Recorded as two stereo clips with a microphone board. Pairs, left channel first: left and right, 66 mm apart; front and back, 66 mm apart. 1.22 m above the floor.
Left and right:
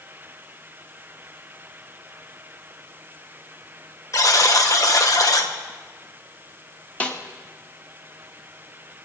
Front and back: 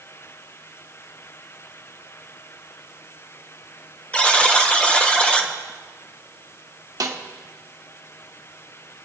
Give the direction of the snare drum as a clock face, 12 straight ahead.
7 o'clock.